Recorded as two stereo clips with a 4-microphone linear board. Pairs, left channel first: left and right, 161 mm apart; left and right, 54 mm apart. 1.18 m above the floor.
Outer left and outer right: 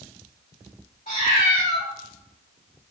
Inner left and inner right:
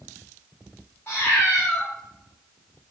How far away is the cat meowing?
About 1.6 m.